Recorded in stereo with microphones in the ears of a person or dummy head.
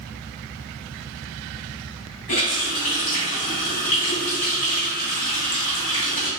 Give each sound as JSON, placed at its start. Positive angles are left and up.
{"t": 2.3, "sound": "a running tap", "side_deg": 35, "distance_m": 1.2}